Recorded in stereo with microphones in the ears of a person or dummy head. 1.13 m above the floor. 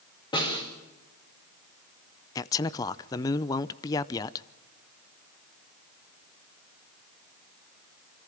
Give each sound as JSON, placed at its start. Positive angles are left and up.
{"t": 0.3, "sound": "a snare drum", "side_deg": 25, "distance_m": 4.5}
{"t": 2.4, "sound": "a man speaking", "side_deg": 15, "distance_m": 0.6}